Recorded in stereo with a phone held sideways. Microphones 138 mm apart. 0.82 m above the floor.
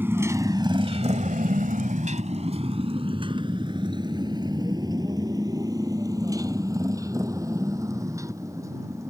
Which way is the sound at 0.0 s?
15° right (ahead or behind).